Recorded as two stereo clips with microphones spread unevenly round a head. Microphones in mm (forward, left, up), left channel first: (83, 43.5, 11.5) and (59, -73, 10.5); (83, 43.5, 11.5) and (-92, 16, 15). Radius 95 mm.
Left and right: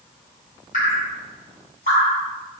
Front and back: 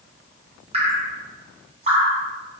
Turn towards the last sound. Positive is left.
turn(degrees=135)